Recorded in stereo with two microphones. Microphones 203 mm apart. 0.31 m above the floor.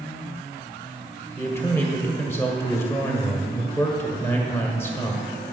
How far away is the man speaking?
About 1.5 m.